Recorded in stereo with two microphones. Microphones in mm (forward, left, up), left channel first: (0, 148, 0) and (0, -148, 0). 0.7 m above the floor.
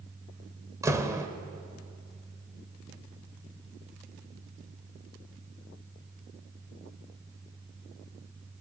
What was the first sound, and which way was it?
A door slam, 10° right (ahead or behind).